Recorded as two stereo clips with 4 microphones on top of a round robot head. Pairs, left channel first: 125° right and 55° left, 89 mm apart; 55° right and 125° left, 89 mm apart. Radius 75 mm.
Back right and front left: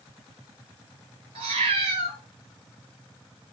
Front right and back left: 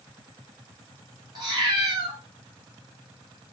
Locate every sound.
1.4 s a cat meowing: 80° left, 1.0 m